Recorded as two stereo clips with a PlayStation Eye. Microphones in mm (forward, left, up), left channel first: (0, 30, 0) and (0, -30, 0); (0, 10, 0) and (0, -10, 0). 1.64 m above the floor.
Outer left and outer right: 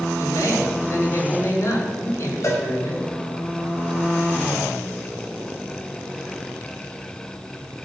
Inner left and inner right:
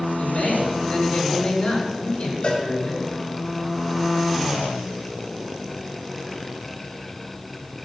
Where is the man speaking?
55° left (ahead or behind), 6.5 m.